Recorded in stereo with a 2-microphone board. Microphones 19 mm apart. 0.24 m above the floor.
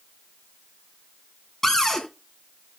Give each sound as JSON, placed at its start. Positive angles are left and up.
{"t": 1.6, "sound": "a cupboard door", "side_deg": 30, "distance_m": 3.5}